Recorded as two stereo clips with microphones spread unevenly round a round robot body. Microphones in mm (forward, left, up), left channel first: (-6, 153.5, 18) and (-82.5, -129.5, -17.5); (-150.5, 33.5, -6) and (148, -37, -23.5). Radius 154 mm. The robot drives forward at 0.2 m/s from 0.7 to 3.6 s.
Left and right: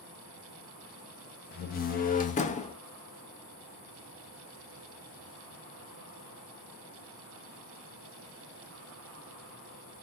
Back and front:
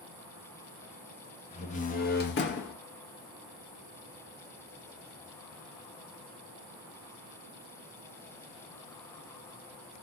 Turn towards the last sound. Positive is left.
turn(degrees=150)